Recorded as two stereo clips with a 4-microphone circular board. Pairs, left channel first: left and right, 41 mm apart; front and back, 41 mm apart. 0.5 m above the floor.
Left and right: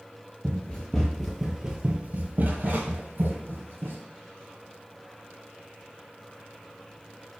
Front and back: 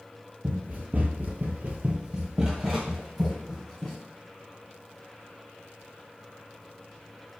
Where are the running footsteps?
140° left, 0.8 m; by 4.0 s 85° right, 1.3 m.